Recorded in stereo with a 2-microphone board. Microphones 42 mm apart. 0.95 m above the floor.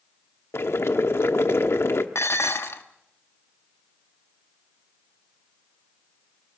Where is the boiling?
75° left (ahead or behind), 1.1 m.